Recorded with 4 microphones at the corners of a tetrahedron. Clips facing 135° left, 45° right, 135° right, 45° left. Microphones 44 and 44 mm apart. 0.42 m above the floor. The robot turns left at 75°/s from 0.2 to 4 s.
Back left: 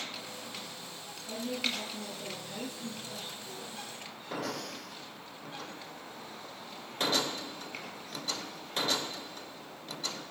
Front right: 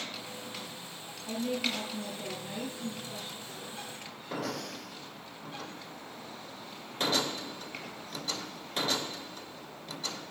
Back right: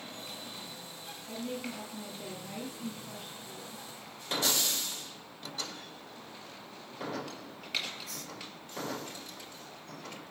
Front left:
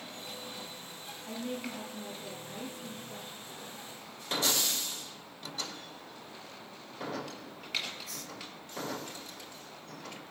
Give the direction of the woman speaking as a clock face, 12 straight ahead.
12 o'clock.